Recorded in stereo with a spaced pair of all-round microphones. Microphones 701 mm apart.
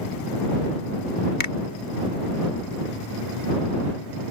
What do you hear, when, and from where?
1.4 s a finger snap: 75° left (ahead or behind)